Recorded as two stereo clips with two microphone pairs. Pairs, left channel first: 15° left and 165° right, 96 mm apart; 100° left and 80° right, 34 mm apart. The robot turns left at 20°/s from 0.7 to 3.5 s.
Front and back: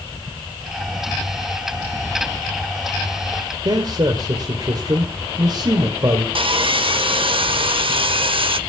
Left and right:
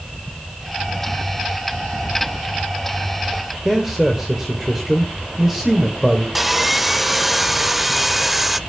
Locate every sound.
3.6 s a man speaking: 160° right, 1.9 m
6.3 s sawing: 170° right, 0.6 m